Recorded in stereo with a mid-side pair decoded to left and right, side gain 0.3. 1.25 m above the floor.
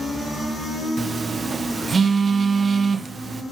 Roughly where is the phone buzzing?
Ahead right.